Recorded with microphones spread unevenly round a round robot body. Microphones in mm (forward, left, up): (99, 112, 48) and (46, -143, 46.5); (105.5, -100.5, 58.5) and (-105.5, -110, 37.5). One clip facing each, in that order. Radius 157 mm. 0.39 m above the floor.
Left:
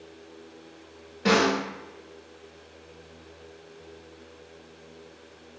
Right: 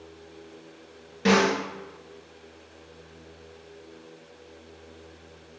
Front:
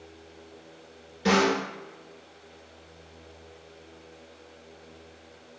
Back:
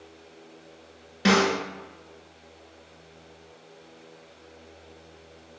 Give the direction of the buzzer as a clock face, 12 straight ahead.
I don't hear a buzzer.